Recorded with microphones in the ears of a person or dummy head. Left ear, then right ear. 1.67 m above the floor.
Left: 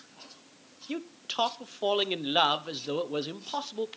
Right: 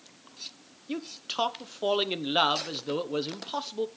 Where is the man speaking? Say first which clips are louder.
Right 1 dB; 10° left (ahead or behind), 0.9 m.